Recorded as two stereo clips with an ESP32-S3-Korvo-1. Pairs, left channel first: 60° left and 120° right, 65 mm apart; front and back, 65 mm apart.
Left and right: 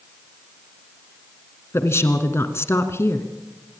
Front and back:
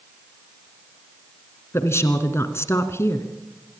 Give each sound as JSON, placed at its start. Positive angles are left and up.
{"t": 1.7, "sound": "a woman speaking", "azimuth_deg": 30, "distance_m": 2.0}